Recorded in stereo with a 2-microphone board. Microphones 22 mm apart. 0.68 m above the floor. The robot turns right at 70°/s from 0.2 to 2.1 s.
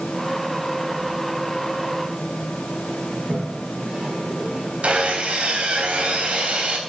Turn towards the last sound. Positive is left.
turn(degrees=-80)